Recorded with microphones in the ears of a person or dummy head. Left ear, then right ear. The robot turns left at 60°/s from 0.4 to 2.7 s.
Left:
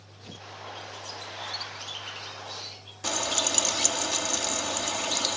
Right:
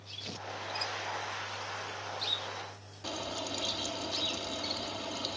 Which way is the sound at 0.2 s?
25° right (ahead or behind).